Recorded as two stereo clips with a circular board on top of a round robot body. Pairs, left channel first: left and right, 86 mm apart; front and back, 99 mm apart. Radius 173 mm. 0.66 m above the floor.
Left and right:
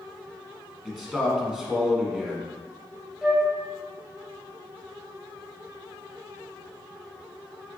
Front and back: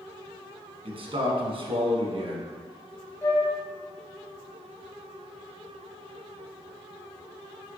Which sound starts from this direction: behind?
A man speaking, at 0.8 s.